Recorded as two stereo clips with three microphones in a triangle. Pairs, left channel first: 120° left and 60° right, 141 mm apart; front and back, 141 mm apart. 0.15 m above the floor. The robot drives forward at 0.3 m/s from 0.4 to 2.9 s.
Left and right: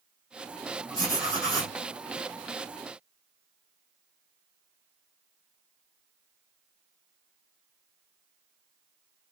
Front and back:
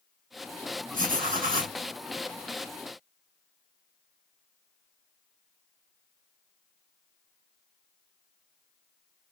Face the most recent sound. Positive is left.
turn(degrees=-175)